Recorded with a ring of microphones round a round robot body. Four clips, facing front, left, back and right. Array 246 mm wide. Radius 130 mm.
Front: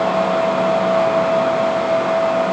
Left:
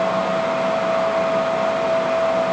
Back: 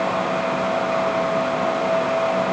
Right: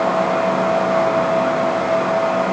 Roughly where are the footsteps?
No footsteps in this recording.